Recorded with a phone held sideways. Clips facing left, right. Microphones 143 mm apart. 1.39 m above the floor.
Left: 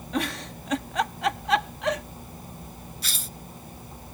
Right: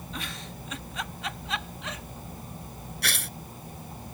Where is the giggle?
70° left (ahead or behind).